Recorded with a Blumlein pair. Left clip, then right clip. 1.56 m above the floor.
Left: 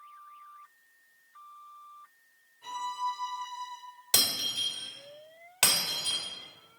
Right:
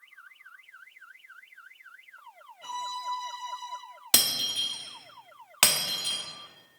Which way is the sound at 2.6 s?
50° right.